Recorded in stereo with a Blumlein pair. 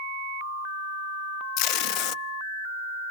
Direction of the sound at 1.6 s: 40° left.